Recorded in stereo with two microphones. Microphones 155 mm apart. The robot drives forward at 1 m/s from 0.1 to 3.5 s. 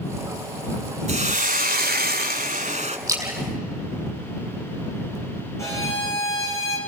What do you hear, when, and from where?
1.1 s a hiss: 45° right (ahead or behind), 1.4 m
3.1 s a splash: 20° right (ahead or behind), 5 m; by 5.2 s 15° right (ahead or behind), 5.5 m
5.6 s a violin: 20° left (ahead or behind), 5 m